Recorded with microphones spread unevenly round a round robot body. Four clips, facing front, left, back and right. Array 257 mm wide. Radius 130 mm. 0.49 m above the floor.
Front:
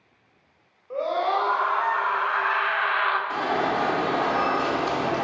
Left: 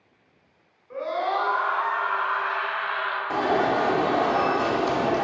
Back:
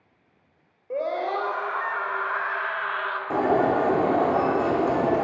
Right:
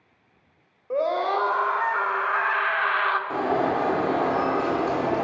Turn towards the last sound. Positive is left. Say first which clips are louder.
# left 5 dB, back 4 dB
turn(degrees=175)